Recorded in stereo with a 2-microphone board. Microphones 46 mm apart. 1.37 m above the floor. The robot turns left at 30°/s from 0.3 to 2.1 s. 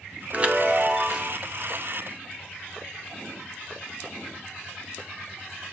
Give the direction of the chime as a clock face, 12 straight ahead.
5 o'clock.